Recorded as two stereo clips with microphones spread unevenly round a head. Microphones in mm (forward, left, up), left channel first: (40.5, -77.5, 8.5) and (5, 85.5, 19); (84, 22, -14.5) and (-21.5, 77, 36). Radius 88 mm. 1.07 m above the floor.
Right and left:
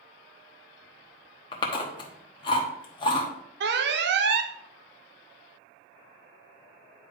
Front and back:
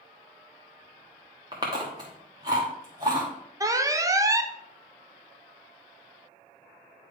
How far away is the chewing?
About 1.0 m.